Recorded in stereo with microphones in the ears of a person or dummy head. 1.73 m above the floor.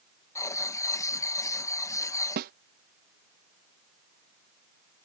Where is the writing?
15° left (ahead or behind).